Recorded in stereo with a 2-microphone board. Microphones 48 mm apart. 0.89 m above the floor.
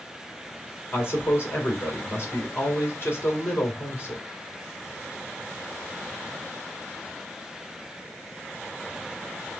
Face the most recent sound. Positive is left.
turn(degrees=55)  # may be behind; listen again after turning